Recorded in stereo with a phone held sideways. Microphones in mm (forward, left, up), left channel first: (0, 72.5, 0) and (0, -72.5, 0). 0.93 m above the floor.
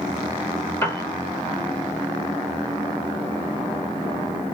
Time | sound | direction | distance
0.8 | a piano | 15° left (ahead or behind) | 1.1 m